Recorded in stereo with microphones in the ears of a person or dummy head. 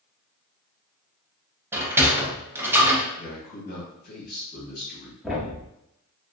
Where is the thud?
5° right (ahead or behind), 0.8 m.